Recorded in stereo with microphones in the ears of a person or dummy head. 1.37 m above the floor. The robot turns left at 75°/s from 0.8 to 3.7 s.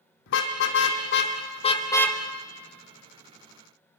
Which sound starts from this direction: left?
A car horn, at 0.3 s.